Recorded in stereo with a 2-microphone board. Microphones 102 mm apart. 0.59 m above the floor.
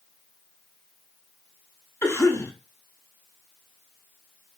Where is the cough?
25° left (ahead or behind), 0.9 m.